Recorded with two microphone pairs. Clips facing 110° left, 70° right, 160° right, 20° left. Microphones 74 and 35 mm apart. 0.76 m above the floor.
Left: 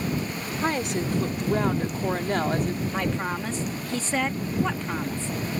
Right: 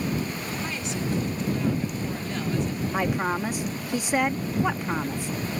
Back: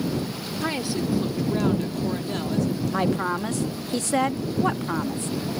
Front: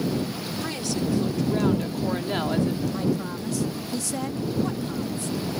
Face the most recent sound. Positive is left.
turn(degrees=-140)